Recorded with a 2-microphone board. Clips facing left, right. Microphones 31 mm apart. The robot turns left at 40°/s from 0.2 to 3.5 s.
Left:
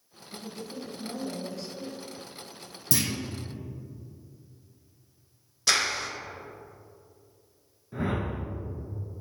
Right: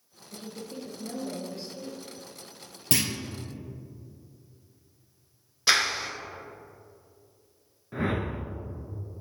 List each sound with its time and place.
0.3 s a woman speaking: 90° right, 1.7 m; by 2.0 s 160° right, 1.7 m
2.9 s a clunk: 45° right (ahead or behind), 1.4 m; by 3.1 s 40° right (ahead or behind), 1.4 m
5.7 s a clap: 20° right (ahead or behind), 0.9 m
7.9 s a whoosh: 35° right (ahead or behind), 1.0 m